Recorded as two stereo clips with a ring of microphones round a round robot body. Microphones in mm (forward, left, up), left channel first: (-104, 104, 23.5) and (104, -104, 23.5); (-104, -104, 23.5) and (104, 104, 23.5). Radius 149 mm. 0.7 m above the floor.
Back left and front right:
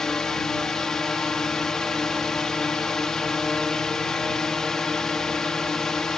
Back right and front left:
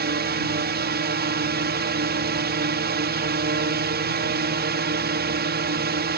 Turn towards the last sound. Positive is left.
turn(degrees=50)